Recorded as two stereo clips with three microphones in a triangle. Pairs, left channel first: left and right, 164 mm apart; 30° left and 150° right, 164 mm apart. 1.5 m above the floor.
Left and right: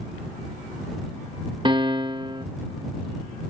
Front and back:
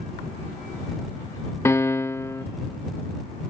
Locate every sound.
1.6 s a piano: 40° right